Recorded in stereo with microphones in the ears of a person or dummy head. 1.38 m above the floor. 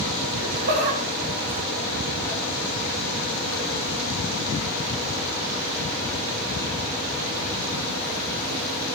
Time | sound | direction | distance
0.4 | laughter | 60° right (ahead or behind) | 1.2 m